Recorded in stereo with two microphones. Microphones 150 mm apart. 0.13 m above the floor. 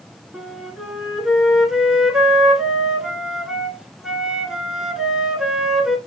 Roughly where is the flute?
Centre.